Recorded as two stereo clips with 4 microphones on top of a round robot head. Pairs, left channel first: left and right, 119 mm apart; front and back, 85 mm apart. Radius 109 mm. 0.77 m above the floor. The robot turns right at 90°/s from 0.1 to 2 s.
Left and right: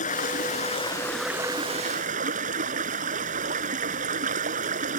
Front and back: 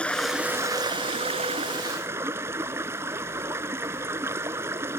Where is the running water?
80° left; by 5.0 s 110° right.